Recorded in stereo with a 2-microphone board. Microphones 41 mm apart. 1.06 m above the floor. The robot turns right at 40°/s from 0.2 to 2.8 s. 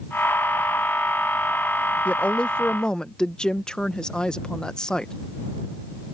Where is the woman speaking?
35° left (ahead or behind); by 5.1 s 20° left (ahead or behind).